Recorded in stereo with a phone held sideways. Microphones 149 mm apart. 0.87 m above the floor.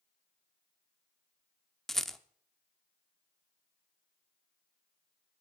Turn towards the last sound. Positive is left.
turn(degrees=0)  # may be behind; listen again after turning